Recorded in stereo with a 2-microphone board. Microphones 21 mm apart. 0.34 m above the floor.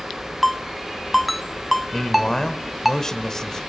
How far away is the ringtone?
About 0.8 m.